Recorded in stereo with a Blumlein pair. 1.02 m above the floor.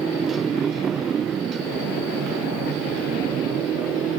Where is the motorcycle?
20° right; by 4.2 s 30° right.